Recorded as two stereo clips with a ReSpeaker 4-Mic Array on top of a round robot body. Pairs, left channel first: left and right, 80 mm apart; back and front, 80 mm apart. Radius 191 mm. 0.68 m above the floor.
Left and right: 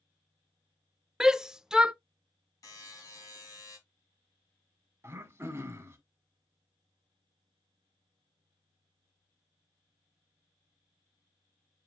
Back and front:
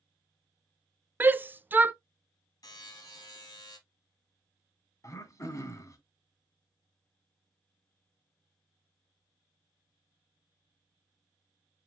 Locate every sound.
1.2 s a shout: 20° right, 0.7 m
2.6 s a buzzer: 140° left, 3 m
5.0 s throat clearing: 140° right, 1.7 m